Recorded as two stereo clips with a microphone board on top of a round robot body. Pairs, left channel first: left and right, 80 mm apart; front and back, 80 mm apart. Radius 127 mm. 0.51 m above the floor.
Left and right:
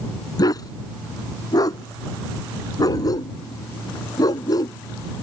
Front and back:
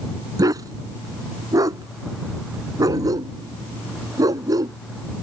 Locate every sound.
0.4 s a dog barking: 135° left